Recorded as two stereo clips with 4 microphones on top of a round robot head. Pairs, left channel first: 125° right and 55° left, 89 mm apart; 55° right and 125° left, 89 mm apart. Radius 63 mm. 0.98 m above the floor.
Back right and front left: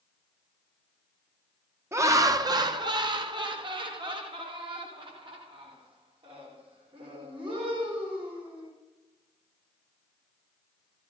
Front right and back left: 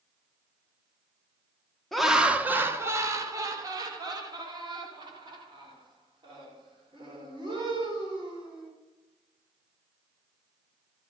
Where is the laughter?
30° left, 0.8 m; by 8.7 s 90° left, 5 m.